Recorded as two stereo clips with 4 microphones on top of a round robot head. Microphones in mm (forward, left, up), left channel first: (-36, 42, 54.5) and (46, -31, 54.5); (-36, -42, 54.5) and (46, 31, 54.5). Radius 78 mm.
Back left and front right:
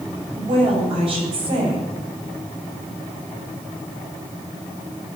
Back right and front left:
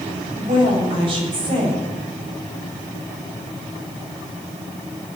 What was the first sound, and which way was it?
A woman speaking, straight ahead.